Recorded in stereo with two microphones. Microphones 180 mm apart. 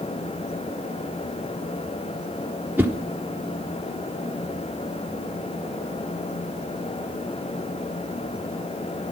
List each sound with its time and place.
2.8 s a whoosh: 10° right (ahead or behind), 0.9 m